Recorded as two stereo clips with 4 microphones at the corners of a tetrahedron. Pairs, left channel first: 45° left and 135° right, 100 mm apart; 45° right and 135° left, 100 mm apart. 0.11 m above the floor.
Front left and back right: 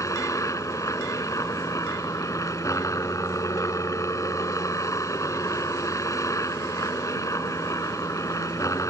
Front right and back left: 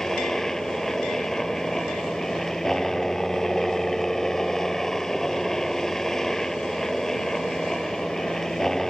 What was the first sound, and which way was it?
A helicopter, 35° left.